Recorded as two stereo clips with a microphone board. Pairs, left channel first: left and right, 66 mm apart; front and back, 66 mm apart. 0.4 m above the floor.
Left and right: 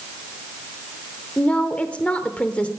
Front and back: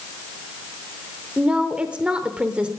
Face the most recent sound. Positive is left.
turn(degrees=130)